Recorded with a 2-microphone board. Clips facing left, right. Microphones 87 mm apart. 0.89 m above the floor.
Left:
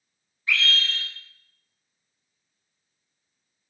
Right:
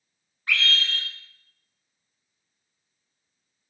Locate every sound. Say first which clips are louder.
0.5 s a scream: even; 60° right (ahead or behind), 1.4 m